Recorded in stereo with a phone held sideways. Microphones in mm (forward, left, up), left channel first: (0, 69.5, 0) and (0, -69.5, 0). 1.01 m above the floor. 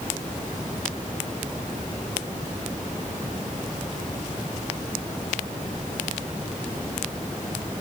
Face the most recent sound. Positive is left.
No sound to turn to.